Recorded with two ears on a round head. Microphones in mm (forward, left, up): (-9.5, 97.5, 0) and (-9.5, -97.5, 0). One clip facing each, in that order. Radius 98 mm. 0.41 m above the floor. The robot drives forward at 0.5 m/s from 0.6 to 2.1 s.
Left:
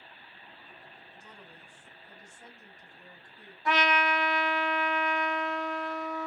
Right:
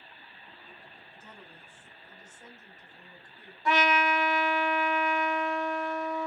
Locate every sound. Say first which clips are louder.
1.1 s a woman speaking: right 2 dB; 5° right (ahead or behind), 1.7 m
3.6 s a trumpet: right 2 dB; 80° right, 0.7 m